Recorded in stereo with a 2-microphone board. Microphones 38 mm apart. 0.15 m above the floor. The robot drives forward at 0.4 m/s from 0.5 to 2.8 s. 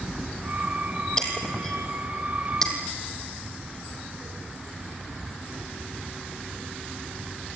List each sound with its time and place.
1.2 s breaking glass: 15° left (ahead or behind), 3.5 m; by 2.7 s 10° left (ahead or behind), 4 m